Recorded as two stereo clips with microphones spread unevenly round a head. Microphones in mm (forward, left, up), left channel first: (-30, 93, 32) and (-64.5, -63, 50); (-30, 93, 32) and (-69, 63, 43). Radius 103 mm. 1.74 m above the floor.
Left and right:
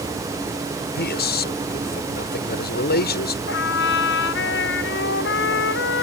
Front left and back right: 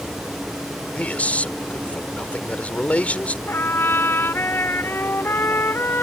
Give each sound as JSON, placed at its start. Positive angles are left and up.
{"t": 0.9, "sound": "a man speaking", "azimuth_deg": 105}
{"t": 3.5, "sound": "a trumpet", "azimuth_deg": 80}